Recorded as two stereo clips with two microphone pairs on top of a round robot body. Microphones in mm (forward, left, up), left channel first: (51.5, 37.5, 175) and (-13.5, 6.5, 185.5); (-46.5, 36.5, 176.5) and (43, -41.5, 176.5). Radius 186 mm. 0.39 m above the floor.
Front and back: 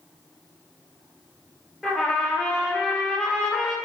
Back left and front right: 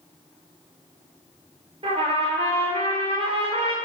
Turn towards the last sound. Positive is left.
turn(degrees=-65)